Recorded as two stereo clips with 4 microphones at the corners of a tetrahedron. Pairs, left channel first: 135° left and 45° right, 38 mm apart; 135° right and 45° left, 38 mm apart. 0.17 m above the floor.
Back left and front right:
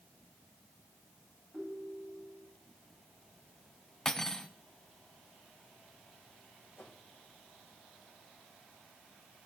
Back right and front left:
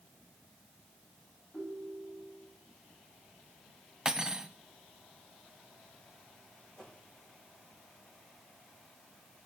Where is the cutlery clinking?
85° left, 0.6 m.